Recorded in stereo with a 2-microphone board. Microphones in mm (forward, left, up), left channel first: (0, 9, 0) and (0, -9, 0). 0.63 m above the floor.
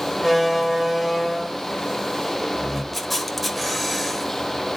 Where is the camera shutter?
Centre (ahead or behind), 1.2 m.